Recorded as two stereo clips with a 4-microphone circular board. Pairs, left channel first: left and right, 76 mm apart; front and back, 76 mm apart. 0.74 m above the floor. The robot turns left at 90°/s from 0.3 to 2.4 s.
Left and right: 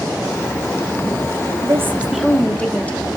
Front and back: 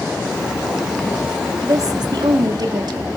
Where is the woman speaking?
130° right, 1.1 m; by 3.1 s 160° left, 1.1 m.